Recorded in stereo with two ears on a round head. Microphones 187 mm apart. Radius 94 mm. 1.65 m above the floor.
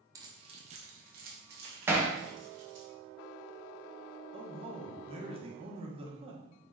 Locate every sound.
0.1 s keys jangling: 15° right (ahead or behind), 0.7 m; by 2.9 s 60° right (ahead or behind), 1.8 m
1.9 s hammering: 10° right (ahead or behind), 0.8 m
4.3 s a man speaking: 30° right (ahead or behind), 1.1 m